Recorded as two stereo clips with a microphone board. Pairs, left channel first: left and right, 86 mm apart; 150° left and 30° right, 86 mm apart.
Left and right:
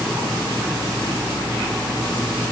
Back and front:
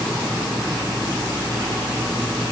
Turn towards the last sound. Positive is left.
No sound to turn to.